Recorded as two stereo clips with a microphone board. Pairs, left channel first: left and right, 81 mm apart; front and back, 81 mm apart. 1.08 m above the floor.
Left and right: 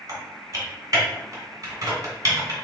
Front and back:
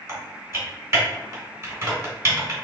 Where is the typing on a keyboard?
135° right, 2.0 m.